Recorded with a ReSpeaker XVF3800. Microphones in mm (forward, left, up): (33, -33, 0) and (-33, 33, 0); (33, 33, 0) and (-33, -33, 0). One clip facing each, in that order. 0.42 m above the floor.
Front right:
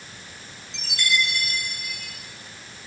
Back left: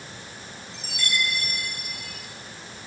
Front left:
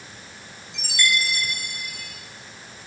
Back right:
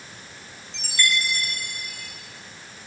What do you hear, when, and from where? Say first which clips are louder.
0.7 s a chime: front right 4 dB, front left 1 dB; 30° right, 7.5 m